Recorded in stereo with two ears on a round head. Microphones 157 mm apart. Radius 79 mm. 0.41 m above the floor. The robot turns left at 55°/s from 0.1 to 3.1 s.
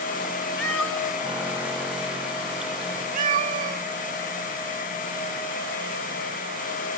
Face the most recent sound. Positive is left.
turn(degrees=-45)  # may be behind; listen again after turning